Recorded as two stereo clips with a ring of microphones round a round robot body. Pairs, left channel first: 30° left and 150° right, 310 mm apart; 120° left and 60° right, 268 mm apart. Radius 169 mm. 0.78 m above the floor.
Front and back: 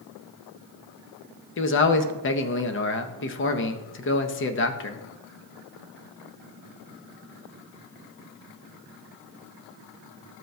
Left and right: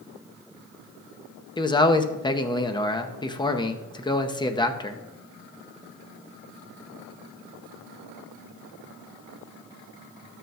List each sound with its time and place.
1.6 s a man speaking: 55° left, 0.8 m